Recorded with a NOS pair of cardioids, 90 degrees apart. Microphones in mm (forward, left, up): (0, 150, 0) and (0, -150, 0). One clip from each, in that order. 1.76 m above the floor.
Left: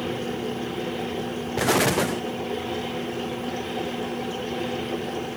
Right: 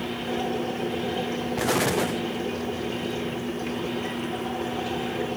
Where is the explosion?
15° left.